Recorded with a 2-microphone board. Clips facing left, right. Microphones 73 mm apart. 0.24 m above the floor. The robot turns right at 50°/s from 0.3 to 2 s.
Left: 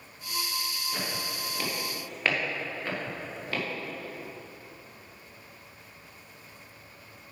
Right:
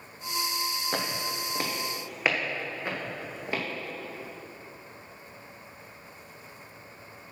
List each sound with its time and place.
0.9 s footsteps: 65° right (ahead or behind), 2 m; by 3.6 s 20° right (ahead or behind), 3.5 m